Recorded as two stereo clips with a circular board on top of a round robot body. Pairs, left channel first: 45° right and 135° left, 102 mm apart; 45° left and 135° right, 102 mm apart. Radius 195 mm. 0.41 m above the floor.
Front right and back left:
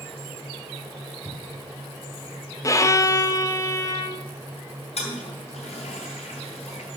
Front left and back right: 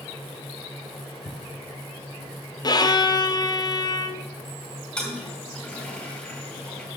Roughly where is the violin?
Ahead.